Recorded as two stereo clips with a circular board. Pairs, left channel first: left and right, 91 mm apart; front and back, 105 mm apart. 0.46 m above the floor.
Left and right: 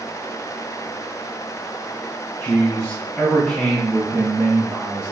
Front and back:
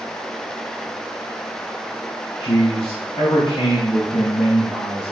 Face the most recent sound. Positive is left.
turn(degrees=-35)